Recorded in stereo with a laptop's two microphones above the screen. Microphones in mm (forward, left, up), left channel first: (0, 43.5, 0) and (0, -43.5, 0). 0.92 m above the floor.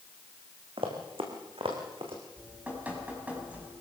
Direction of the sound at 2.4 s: 15° right (ahead or behind).